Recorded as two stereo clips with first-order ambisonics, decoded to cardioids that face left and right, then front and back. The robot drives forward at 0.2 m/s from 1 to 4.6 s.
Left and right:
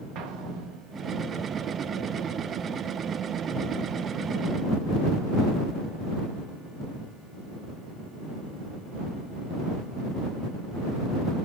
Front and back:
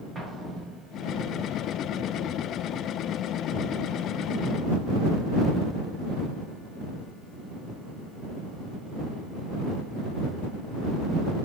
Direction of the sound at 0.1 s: 105° right.